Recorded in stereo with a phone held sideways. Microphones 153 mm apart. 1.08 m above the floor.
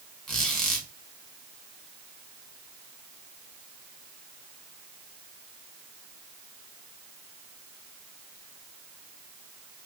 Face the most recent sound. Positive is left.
turn(degrees=0)  # may be behind; listen again after turning